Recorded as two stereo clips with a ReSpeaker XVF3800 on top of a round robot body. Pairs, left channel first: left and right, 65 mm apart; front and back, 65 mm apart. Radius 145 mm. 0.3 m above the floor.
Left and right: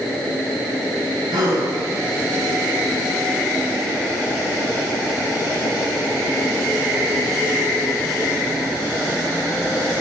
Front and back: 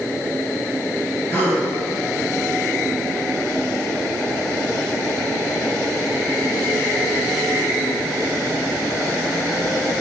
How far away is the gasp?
About 5.5 m.